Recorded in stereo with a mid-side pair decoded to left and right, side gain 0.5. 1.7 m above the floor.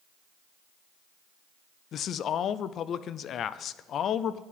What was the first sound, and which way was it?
A man speaking, 55° left.